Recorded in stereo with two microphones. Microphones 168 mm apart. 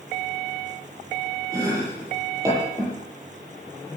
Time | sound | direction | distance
1.5 | chopping | 20° right (ahead or behind) | 8.5 m